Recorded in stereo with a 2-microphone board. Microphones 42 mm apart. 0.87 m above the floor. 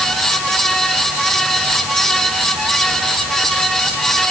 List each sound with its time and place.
Only background noise.